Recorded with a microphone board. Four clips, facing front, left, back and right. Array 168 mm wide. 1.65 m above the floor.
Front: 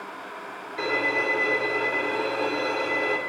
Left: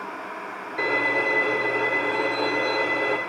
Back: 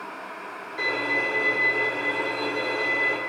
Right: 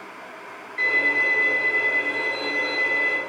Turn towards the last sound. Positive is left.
turn(degrees=75)